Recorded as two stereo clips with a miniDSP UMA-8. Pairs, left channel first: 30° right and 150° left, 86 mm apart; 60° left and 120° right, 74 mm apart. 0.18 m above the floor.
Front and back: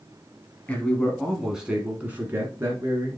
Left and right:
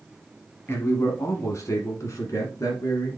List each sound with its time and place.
0.7 s a man speaking: 30° left, 1.3 m; by 3.2 s 100° left, 2 m